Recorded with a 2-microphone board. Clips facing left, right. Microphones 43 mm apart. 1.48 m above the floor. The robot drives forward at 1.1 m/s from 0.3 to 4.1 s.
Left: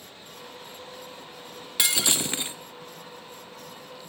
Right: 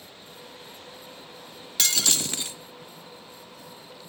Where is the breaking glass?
15° left (ahead or behind), 1.1 m; by 2.6 s 25° left (ahead or behind), 0.7 m.